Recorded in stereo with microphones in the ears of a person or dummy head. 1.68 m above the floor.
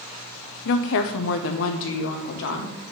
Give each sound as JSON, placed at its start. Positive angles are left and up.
{"t": 0.7, "sound": "a woman speaking", "side_deg": 55, "distance_m": 0.7}